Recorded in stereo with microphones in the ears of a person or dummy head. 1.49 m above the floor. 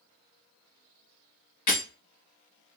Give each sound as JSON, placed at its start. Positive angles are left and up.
{"t": 1.7, "sound": "breaking glass", "side_deg": 40, "distance_m": 1.7}